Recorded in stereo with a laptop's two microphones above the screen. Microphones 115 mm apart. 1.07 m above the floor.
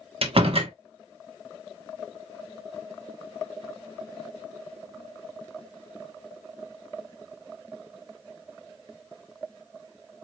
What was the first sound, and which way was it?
A door slam, 60° right (ahead or behind).